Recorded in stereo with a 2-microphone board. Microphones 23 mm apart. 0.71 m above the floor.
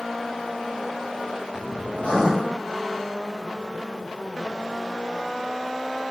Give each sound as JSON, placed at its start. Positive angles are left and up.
{"t": 1.9, "sound": "writing", "side_deg": 70, "distance_m": 1.4}